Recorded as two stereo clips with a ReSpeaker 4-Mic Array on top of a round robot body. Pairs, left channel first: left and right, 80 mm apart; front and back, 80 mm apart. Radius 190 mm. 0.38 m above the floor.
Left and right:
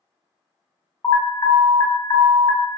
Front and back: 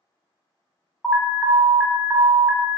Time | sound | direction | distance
1.0 | an alarm | 80° left | 0.8 m